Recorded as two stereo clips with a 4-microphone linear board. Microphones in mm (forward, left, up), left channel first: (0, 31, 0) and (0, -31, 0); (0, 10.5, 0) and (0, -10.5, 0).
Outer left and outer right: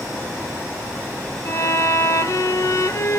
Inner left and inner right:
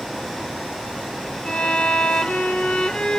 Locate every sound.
1.4 s a violin: 60° left (ahead or behind), 0.9 m